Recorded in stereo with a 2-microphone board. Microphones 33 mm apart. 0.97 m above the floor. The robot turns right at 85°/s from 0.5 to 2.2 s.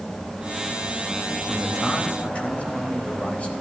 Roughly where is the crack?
No crack in this recording.